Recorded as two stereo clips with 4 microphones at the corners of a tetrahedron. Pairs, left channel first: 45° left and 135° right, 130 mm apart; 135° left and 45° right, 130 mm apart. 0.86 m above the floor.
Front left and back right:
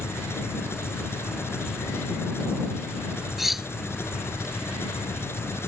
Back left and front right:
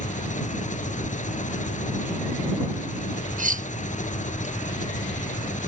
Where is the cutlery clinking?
45° right.